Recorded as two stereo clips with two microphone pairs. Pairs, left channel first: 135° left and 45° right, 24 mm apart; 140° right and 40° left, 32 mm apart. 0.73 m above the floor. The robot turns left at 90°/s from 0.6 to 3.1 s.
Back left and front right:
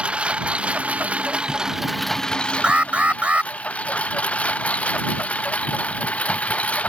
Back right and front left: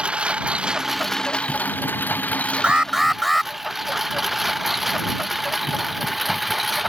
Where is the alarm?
10° right; by 3.5 s 50° right.